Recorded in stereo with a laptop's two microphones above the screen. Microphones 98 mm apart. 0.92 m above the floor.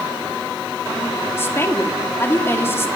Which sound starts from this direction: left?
A woman speaking, at 1.4 s.